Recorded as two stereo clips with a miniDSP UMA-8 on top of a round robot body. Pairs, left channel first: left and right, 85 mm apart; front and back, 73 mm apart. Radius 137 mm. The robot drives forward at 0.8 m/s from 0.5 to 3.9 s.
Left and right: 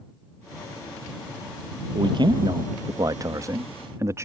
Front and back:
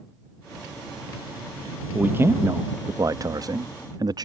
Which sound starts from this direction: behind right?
A man speaking, at 1.9 s.